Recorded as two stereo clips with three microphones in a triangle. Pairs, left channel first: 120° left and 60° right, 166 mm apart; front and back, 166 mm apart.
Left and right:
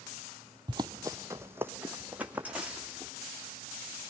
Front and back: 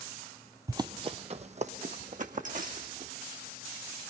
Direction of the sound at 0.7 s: 115° right.